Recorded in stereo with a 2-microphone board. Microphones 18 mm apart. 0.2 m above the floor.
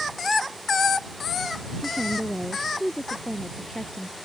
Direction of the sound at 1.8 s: 60° left (ahead or behind).